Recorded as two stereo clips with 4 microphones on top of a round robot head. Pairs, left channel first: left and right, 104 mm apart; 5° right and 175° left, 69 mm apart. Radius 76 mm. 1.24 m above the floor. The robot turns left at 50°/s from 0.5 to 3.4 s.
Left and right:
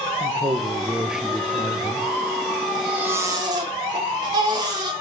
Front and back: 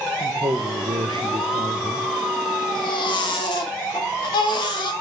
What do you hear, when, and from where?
0.2 s a man speaking: 140° right, 0.8 m; by 2.1 s 140° left, 0.8 m
2.8 s a baby crying: straight ahead, 1.1 m; by 4.9 s 30° right, 1.1 m